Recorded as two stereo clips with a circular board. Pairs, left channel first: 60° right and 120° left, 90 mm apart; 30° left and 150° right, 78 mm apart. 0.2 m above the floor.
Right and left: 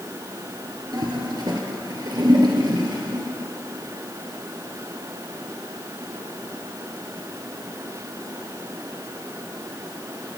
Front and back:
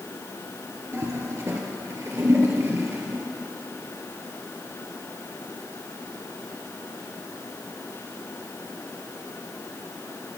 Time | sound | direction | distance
0.9 | a toilet flushing | 155° left | 3 m